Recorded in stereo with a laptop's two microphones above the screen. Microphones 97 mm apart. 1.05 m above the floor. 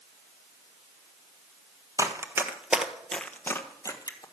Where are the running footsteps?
35° right (ahead or behind), 1.2 m; by 4.2 s 40° left (ahead or behind), 1.4 m.